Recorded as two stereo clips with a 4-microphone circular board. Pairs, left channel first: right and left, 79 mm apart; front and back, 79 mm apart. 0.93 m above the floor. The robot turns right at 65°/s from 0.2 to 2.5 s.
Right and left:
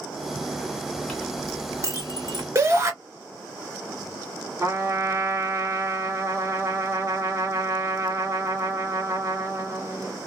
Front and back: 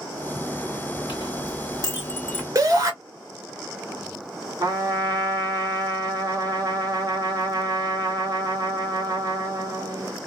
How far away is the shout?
About 1.5 m.